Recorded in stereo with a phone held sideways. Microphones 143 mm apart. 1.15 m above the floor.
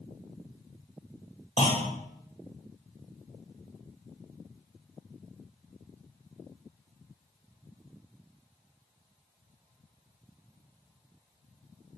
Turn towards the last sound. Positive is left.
turn(degrees=40)  # may be behind; listen again after turning